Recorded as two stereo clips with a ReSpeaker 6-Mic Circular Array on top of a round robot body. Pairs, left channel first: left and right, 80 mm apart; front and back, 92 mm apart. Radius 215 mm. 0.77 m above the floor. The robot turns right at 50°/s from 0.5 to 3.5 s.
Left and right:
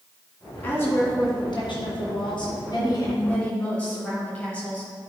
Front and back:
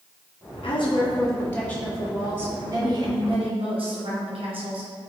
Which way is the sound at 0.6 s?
25° left.